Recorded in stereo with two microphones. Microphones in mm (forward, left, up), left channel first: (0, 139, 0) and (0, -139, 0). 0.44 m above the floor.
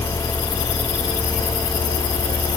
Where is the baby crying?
No baby crying in this recording.